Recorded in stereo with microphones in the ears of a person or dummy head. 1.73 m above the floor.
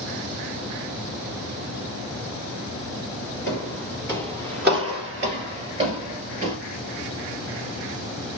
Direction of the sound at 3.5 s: 10° left (ahead or behind).